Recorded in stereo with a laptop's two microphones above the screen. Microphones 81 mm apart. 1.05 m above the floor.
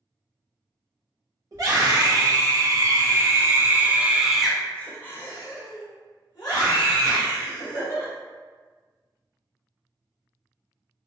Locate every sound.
1.5 s a scream: 50° right (ahead or behind), 1.8 m; by 8.1 s 65° left (ahead or behind), 1.9 m